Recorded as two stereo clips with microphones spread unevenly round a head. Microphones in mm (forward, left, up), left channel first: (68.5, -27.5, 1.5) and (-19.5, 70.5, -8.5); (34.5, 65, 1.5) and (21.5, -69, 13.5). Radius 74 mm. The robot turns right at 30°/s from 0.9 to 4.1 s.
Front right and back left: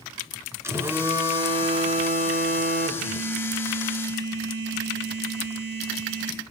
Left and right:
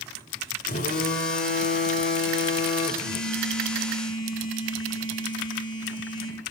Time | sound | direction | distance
0.6 | a phone buzzing | 60° left | 2.5 m
3.0 | a phone buzzing | 110° left | 5 m